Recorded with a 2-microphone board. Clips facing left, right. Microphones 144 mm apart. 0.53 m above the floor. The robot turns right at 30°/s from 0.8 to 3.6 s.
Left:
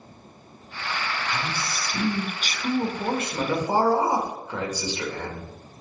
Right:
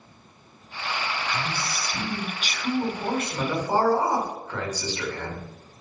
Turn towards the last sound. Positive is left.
turn(degrees=165)